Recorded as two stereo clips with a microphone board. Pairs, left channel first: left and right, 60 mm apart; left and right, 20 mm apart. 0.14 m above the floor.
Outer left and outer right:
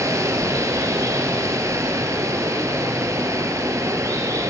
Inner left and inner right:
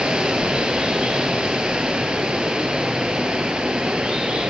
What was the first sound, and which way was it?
Running water, 65° right (ahead or behind).